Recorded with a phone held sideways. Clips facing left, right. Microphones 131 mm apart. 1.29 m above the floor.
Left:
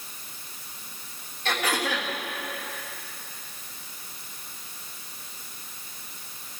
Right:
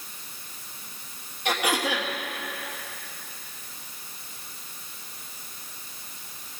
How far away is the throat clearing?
About 1.9 m.